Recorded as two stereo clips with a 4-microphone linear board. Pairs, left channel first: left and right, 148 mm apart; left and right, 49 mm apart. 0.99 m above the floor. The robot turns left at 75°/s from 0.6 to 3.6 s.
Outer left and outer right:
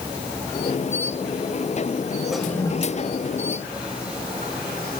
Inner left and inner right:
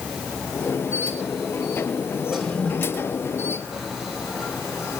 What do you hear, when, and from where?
2.3 s a toilet flushing: 5° right (ahead or behind), 2.5 m; by 5.0 s 85° left, 2.5 m